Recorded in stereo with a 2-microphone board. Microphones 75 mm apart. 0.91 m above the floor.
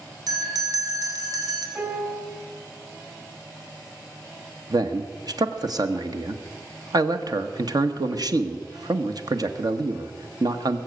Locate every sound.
0.3 s a bell: 55° right (ahead or behind), 3 m
1.8 s a piano: 25° right (ahead or behind), 2.5 m
4.7 s a man speaking: 55° right (ahead or behind), 1.2 m